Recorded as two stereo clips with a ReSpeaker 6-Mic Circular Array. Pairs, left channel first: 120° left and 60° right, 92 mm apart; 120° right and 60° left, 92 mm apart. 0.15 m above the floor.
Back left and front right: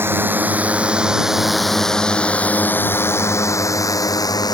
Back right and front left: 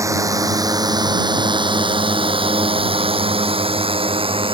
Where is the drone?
5° left; by 4.5 s 75° left.